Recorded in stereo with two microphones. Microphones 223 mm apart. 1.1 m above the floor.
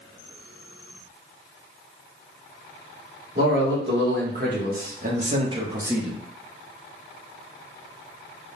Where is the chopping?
I don't hear chopping.